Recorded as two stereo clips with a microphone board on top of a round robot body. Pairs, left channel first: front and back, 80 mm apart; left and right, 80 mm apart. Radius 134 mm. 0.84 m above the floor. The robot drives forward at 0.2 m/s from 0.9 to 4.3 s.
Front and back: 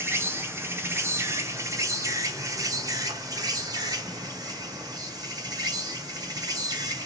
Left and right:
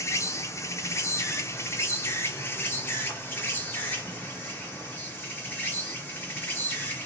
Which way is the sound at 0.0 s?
130° left.